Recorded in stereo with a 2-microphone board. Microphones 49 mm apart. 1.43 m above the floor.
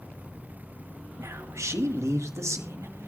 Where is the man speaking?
70° right (ahead or behind), 1.8 m; by 3.1 s 80° right, 2.5 m.